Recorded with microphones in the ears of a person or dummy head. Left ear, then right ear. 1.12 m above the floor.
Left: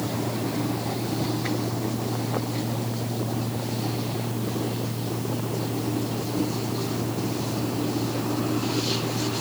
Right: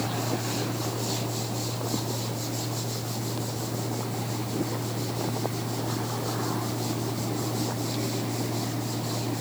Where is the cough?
I don't hear a cough.